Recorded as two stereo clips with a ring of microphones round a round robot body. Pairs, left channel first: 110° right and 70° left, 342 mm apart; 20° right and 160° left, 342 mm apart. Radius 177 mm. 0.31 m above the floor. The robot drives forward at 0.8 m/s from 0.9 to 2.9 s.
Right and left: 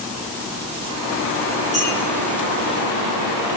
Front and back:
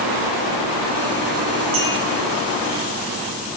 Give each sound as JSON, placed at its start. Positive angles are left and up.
{"t": 1.7, "sound": "a clink", "azimuth_deg": 140, "distance_m": 3.5}